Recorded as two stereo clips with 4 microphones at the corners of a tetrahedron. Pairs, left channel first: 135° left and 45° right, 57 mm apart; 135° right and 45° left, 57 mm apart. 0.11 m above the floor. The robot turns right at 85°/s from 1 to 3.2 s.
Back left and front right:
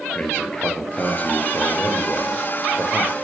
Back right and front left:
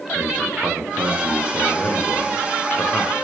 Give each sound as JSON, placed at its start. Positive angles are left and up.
{"t": 0.1, "sound": "a man speaking", "azimuth_deg": 90, "distance_m": 1.9}